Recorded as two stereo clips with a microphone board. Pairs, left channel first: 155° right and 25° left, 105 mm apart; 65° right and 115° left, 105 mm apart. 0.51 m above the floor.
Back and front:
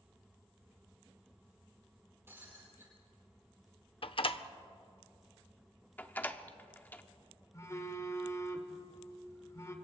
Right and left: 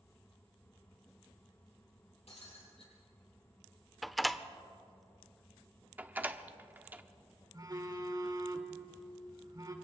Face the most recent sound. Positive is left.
turn(degrees=155)